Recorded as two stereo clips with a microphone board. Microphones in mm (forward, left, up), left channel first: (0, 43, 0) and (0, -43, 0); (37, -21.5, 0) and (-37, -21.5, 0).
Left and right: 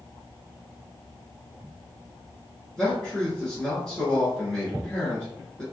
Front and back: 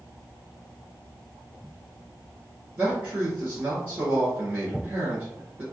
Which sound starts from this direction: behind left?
A man speaking, at 2.8 s.